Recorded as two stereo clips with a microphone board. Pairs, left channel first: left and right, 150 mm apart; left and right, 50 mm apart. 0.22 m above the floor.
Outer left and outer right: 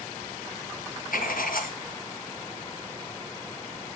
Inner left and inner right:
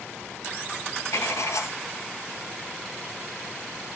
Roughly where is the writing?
Left.